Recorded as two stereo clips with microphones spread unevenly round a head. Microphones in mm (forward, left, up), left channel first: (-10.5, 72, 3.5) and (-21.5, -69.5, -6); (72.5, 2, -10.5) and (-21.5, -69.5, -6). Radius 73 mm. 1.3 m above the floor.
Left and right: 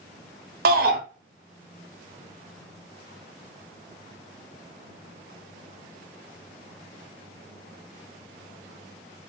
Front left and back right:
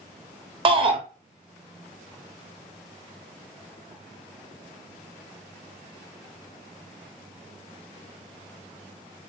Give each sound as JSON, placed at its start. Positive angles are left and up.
{"t": 0.7, "sound": "a shout", "azimuth_deg": -100, "distance_m": 0.9}